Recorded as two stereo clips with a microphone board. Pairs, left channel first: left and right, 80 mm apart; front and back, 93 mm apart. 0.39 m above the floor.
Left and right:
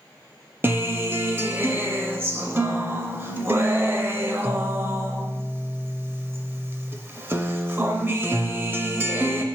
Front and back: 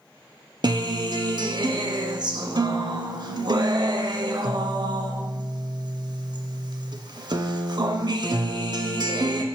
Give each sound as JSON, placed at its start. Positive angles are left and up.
{"t": 0.6, "sound": "a guitar", "azimuth_deg": -145, "distance_m": 0.6}